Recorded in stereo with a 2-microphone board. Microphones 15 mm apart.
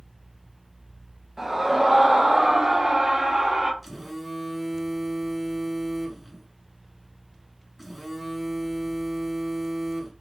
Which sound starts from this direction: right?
A scream, at 1.4 s.